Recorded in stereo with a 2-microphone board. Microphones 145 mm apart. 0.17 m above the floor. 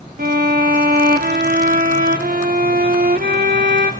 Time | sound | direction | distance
0.2 | a violin | 85° right | 3 m